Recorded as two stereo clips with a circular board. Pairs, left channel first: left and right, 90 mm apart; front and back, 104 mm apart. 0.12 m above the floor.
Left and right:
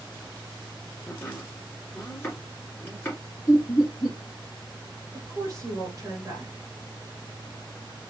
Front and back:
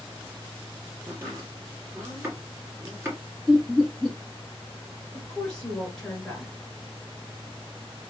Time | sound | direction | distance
1.1 | chopping | 135° left | 1.9 m
3.5 | laughter | 100° left | 2.0 m
5.1 | a woman speaking | 75° right | 1.7 m